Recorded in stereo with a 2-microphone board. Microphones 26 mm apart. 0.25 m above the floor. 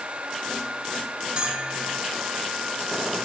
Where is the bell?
40° right (ahead or behind), 1.5 m.